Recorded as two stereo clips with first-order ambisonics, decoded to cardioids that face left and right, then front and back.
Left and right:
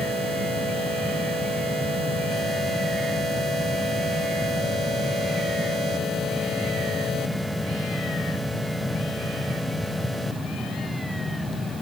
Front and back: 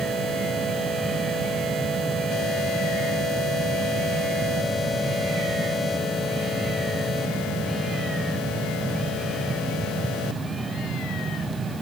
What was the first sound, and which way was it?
Only background noise.